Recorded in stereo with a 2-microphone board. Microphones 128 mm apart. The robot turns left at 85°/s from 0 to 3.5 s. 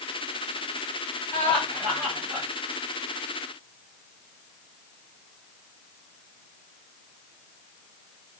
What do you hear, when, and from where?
1.3 s laughter: 30° left, 1.7 m; by 2.5 s 65° right, 1.7 m